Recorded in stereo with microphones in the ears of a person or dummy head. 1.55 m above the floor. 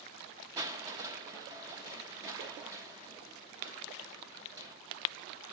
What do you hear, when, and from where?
0.6 s crushing: 20° right (ahead or behind), 0.9 m